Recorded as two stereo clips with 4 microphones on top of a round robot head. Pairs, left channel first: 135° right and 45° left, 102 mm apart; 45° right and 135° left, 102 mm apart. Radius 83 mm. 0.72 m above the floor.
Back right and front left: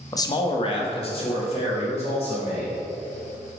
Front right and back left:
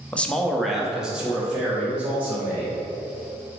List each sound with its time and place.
0.1 s a man speaking: 115° right, 0.6 m; by 2.8 s 150° right, 2.5 m